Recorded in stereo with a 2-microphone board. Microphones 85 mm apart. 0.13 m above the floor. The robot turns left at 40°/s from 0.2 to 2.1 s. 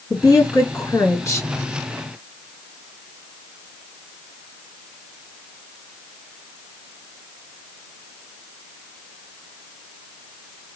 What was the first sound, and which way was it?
A woman speaking, 100° left.